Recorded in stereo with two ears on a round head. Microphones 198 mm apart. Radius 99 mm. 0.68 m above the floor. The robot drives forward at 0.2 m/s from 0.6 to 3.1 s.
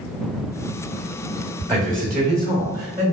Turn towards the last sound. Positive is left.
turn(degrees=-10)  # may be behind; listen again after turning